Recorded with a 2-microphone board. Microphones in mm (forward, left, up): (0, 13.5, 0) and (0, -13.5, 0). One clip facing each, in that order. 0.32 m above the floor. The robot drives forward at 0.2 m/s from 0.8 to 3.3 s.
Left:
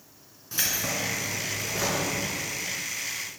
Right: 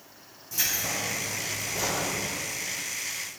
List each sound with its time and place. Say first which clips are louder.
0.5 s keys jangling: left 1 dB; 40° left (ahead or behind), 2.5 m; by 2.1 s 35° left (ahead or behind), 3 m